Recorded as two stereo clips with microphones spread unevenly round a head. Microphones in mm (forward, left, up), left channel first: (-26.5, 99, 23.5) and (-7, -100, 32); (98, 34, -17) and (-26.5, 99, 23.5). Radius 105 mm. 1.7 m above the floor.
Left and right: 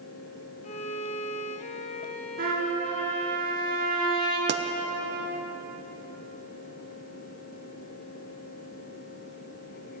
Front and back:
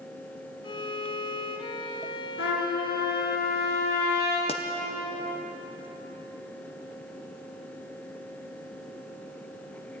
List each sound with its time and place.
0.6 s a violin: 35° left, 1.0 m
2.4 s a trumpet: 35° right, 4 m
4.5 s a pop: 90° right, 0.6 m